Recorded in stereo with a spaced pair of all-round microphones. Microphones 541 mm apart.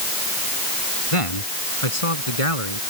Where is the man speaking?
80° left; by 2.8 s 85° left.